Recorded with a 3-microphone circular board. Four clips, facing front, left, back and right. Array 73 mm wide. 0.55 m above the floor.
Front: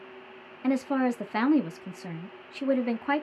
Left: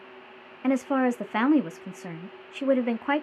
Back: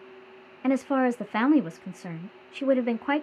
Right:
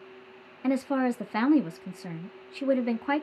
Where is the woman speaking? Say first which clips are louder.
Left 2 dB, back 2 dB; 135° left, 0.6 m.